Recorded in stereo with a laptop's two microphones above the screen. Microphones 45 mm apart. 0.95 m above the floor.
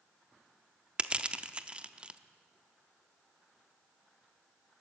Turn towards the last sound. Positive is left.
turn(degrees=-25)  # may be behind; listen again after turning